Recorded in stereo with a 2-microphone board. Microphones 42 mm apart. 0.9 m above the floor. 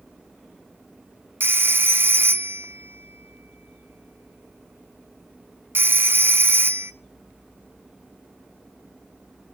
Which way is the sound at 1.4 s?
60° right (ahead or behind).